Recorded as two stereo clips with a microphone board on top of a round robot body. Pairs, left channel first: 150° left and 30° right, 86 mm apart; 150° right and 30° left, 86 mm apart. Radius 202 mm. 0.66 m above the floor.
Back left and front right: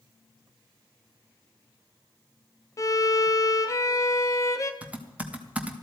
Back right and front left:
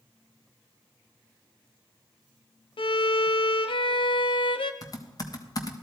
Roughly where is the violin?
Behind.